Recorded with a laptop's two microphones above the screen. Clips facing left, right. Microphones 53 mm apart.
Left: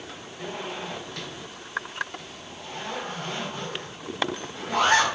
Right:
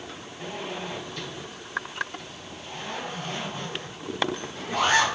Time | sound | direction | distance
0.4 | a zipper | 65° left (ahead or behind) | 1.8 m